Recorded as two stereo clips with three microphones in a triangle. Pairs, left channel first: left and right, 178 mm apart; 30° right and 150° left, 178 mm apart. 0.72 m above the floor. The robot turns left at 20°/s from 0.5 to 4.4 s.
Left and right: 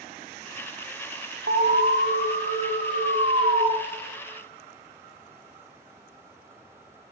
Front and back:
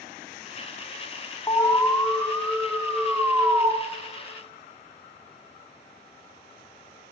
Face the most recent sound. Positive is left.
turn(degrees=-155)